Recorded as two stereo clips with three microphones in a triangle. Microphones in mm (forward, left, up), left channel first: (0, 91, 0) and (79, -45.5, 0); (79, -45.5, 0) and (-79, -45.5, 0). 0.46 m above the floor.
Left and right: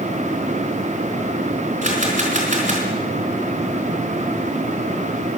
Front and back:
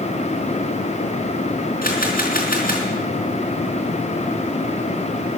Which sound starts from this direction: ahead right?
A camera shutter, at 1.8 s.